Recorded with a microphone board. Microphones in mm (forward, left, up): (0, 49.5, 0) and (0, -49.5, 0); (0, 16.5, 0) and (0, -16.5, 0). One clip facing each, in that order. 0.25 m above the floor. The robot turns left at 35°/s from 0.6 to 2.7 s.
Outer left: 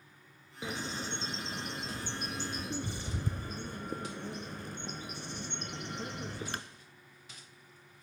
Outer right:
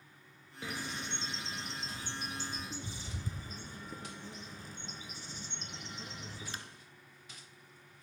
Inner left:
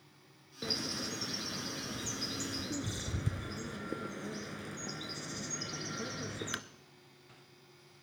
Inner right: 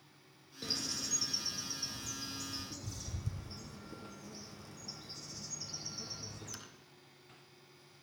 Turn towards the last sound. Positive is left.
turn(degrees=80)